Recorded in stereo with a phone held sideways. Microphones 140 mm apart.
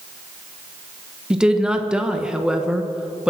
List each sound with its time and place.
1.3 s a woman speaking: 5° right (ahead or behind), 1.1 m